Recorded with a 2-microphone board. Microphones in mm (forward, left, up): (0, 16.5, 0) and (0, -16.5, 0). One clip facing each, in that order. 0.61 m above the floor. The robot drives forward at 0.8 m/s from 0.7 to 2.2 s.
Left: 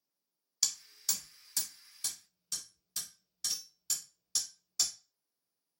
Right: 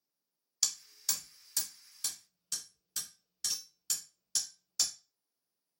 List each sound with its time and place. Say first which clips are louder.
0.6 s hammering: even; centre (ahead or behind), 0.6 m